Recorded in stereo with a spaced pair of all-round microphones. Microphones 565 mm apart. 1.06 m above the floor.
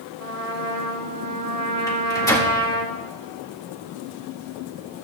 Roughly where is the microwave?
Centre.